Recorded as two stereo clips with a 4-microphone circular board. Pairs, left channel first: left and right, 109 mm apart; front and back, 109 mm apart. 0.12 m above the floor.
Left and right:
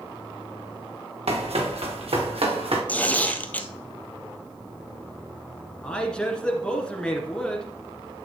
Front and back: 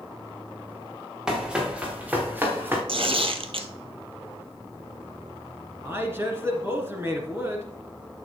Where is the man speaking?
160° left, 1.8 m.